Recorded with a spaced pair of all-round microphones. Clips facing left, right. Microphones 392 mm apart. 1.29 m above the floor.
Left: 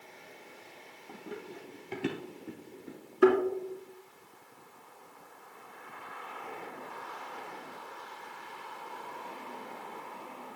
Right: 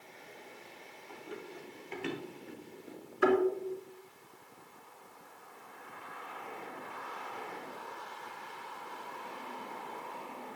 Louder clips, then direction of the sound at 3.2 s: Left 4 dB; 55° left (ahead or behind).